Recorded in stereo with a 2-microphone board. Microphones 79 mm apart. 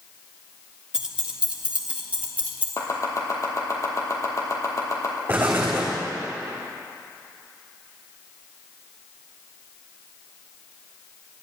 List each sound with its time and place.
0.9 s keys jangling: 10° right (ahead or behind), 1.2 m; by 2.7 s 20° right (ahead or behind), 2.5 m
2.8 s chopping: 40° left (ahead or behind), 2.5 m
5.3 s an explosion: 25° right (ahead or behind), 3 m